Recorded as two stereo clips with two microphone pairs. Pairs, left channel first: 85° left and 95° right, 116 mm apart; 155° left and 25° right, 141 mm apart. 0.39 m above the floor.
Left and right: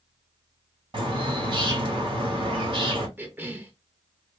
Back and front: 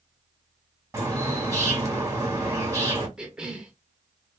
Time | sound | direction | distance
0.9 | a bird | 85° right | 1.6 m
3.2 | a cough | 95° right | 0.8 m